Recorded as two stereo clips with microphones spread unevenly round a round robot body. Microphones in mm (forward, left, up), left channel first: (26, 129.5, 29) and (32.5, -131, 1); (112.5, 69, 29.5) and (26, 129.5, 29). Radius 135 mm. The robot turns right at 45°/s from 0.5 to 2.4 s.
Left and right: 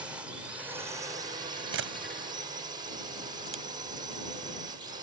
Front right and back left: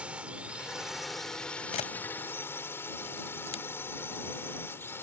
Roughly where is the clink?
No clink in this recording.